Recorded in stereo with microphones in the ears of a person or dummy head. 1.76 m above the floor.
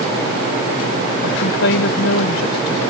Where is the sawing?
No sawing in this recording.